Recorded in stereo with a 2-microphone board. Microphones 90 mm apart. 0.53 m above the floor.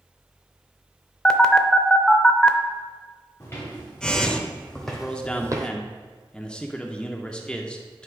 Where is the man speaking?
10° left (ahead or behind), 0.7 m.